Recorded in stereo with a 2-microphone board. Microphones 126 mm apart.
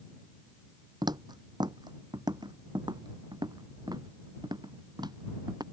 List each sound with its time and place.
1.0 s footsteps: 35° right (ahead or behind)